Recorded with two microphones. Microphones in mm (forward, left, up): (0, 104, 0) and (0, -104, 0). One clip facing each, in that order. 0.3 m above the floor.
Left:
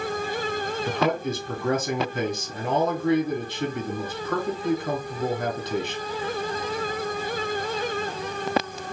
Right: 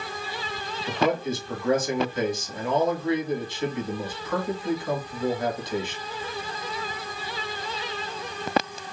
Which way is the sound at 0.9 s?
60° left (ahead or behind).